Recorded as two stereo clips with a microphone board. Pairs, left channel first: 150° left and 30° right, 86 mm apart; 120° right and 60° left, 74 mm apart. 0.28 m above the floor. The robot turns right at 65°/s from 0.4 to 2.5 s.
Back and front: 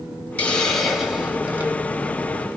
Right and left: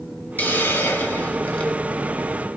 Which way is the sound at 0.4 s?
150° right.